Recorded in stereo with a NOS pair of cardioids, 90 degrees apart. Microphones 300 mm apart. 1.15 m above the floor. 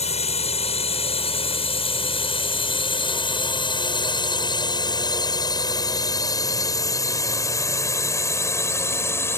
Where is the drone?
20° left; by 9.4 s 10° left.